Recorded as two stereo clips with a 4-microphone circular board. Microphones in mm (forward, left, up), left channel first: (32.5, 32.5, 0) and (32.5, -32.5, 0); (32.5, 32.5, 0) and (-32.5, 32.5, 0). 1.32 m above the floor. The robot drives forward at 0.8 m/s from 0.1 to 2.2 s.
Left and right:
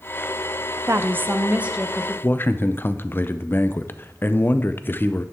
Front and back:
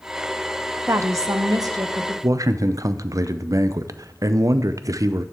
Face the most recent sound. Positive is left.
turn(degrees=145)